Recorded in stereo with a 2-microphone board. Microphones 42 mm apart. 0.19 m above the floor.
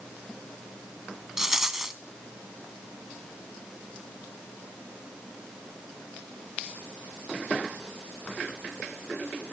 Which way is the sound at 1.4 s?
10° right (ahead or behind).